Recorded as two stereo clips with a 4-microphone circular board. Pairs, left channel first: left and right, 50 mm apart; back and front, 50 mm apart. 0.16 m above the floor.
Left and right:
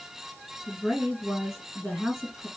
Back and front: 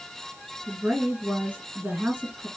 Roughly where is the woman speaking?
Ahead.